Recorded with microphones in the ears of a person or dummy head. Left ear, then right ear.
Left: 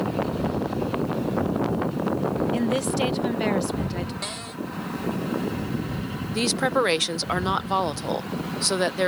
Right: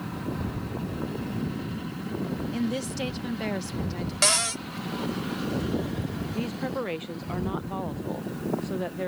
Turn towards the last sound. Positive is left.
turn(degrees=75)  # may be behind; listen again after turning